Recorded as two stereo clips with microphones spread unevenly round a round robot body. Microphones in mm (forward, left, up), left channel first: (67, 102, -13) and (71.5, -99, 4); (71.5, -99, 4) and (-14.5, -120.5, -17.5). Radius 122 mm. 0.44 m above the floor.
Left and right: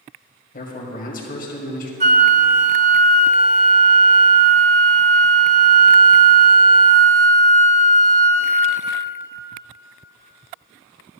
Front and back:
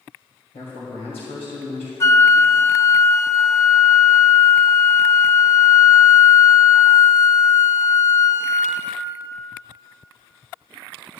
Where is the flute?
45° right, 0.5 m.